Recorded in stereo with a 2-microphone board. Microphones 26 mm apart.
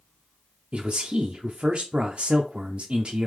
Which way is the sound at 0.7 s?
45° right (ahead or behind).